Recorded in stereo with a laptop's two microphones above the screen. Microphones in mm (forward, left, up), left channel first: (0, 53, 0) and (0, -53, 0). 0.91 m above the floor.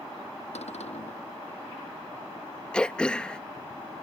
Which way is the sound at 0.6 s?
85° left.